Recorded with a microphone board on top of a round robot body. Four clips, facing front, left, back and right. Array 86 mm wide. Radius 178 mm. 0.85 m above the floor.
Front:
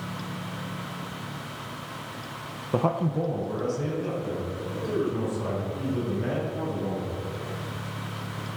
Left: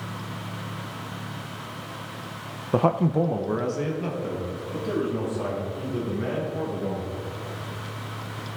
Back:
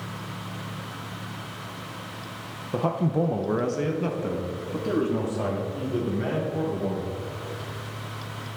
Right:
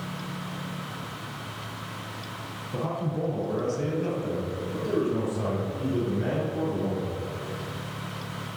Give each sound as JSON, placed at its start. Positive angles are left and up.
{"t": 2.7, "sound": "a man speaking", "azimuth_deg": 70, "distance_m": 0.5}